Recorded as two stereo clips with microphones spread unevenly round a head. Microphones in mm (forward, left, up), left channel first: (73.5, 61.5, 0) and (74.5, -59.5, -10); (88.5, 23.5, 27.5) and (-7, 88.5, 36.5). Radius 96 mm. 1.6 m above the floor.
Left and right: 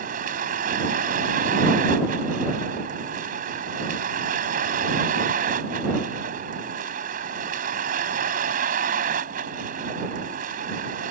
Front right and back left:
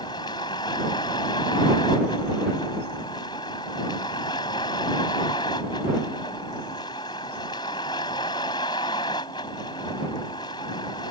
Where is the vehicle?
105° right.